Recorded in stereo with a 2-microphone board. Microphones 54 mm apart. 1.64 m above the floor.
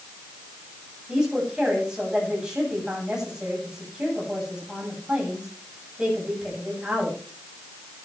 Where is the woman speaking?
10° right (ahead or behind), 8 m.